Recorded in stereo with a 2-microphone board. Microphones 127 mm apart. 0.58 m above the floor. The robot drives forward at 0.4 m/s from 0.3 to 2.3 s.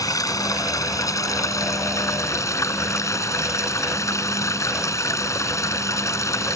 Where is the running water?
30° left (ahead or behind); by 6.5 s 25° left (ahead or behind).